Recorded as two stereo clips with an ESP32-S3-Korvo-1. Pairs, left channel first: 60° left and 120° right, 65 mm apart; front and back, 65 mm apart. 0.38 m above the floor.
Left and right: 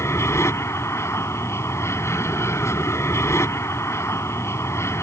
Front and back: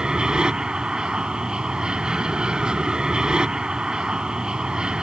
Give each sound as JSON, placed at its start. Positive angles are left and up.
{"t": 0.0, "sound": "an aircraft", "azimuth_deg": 100}